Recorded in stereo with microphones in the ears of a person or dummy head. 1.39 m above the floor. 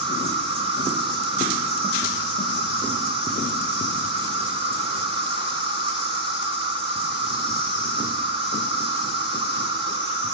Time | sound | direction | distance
0.0 | an insect | 35° right (ahead or behind) | 1.9 m